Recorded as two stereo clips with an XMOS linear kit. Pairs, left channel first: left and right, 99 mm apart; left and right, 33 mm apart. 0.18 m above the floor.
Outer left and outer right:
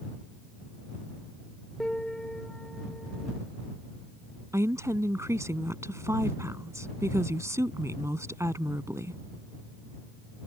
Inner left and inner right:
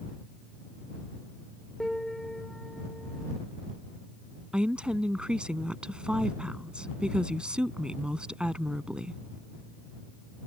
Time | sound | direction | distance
1.8 | a piano | 5° left (ahead or behind) | ?
4.5 | a woman speaking | 30° right (ahead or behind) | ?